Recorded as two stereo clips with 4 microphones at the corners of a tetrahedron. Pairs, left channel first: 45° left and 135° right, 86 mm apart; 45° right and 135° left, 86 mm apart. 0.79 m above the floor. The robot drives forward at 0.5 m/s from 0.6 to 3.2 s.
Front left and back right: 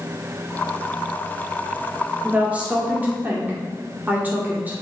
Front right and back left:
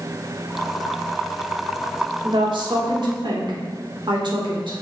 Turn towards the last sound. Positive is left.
turn(degrees=155)